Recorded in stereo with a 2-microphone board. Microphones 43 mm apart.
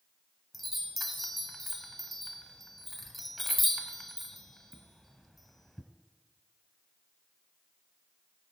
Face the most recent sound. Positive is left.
turn(degrees=5)  # may be behind; listen again after turning